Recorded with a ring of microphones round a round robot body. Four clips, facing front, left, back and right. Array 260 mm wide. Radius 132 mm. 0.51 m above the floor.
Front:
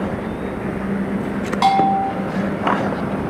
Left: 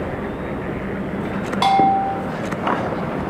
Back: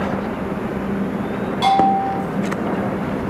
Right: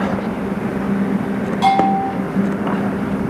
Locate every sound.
1.6 s a bell: 35° left, 0.9 m